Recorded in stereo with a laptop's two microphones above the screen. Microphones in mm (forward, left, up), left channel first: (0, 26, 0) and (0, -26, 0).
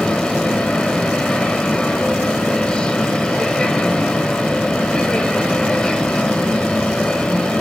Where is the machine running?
20° left (ahead or behind), 1.3 m.